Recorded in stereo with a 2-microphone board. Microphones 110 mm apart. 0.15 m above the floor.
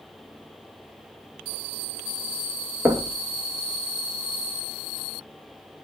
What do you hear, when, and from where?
2.9 s knocking: 25° right (ahead or behind), 2.0 m